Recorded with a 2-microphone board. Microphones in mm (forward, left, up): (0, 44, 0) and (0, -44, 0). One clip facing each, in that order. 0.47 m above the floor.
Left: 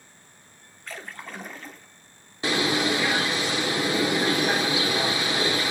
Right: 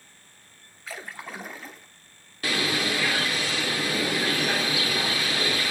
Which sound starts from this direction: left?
A bird, at 2.4 s.